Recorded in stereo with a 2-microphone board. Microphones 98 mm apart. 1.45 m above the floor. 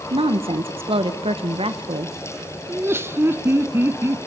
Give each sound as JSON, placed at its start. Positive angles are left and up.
{"t": 0.1, "sound": "a woman speaking", "side_deg": -75, "distance_m": 1.4}
{"t": 2.7, "sound": "laughter", "side_deg": -25, "distance_m": 0.9}